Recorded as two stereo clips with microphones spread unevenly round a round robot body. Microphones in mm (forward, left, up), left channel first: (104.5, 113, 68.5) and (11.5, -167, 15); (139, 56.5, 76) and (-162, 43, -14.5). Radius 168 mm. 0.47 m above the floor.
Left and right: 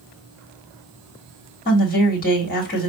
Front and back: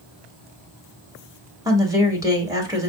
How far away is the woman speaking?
About 1.5 m.